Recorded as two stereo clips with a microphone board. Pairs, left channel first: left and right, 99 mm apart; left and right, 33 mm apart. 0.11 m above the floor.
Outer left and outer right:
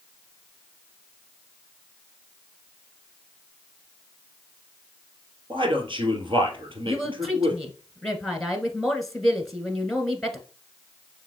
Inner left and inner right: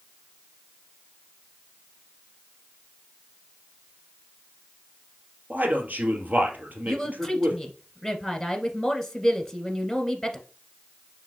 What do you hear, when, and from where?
5.5 s a man speaking: 60° right (ahead or behind), 2.5 m
6.9 s a woman speaking: centre (ahead or behind), 1.1 m